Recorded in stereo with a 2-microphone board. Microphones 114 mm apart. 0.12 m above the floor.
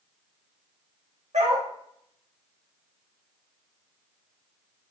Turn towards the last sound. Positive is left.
turn(degrees=-80)